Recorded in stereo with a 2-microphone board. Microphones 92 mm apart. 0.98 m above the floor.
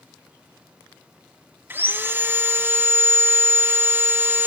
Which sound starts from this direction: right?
Sawing, at 1.7 s.